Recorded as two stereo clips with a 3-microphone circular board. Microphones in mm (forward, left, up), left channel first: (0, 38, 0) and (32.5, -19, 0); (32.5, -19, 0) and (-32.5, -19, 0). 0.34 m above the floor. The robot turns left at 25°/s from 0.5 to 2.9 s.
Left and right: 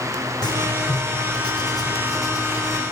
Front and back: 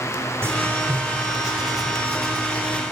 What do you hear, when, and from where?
0.4 s writing: 125° left, 3 m; by 2.8 s 70° left, 3 m